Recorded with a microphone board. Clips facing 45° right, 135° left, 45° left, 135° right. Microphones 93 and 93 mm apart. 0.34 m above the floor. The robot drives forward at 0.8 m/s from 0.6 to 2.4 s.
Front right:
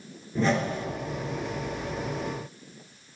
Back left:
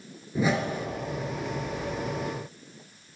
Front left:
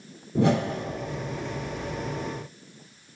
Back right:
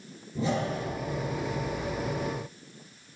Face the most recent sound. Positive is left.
turn(degrees=115)